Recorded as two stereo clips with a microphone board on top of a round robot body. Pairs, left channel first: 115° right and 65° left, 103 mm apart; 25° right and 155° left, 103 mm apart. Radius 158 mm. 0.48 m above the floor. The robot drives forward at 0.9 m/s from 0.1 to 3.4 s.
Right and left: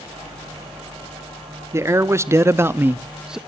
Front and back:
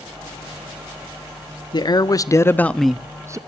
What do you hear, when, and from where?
1.7 s a man speaking: 10° left, 1.4 m; by 3.4 s 150° left, 0.9 m